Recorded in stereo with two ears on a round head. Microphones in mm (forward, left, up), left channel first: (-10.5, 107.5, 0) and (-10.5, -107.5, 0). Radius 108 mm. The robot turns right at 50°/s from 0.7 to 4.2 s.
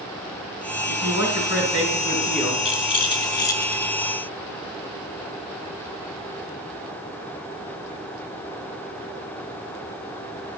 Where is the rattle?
25° left (ahead or behind), 0.8 m; by 3.9 s 10° left (ahead or behind), 0.8 m.